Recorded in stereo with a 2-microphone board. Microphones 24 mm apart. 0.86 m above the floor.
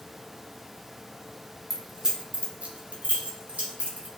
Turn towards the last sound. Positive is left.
turn(degrees=-80)